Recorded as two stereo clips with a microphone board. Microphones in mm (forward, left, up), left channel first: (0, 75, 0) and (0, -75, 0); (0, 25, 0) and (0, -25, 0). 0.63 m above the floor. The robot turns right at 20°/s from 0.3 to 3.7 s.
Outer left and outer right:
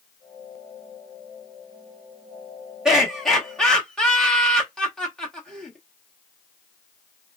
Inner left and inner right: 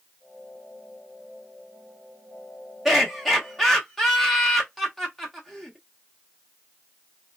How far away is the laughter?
About 1.1 m.